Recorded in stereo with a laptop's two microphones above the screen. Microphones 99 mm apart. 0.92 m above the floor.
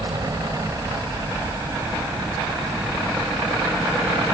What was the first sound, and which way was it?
A helicopter, 40° right (ahead or behind).